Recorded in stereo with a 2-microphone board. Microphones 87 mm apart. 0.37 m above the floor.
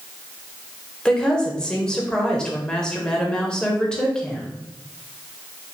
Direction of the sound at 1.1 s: 10° left (ahead or behind).